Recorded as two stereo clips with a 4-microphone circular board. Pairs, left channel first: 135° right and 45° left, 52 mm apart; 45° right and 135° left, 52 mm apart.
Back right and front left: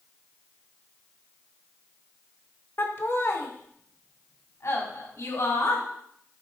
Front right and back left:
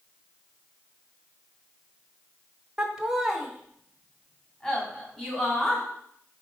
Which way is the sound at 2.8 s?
150° right.